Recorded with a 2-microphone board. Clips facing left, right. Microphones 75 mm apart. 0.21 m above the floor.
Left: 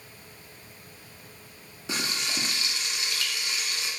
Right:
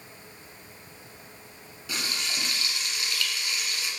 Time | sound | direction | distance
1.9 | frying | 25° left (ahead or behind) | 0.6 m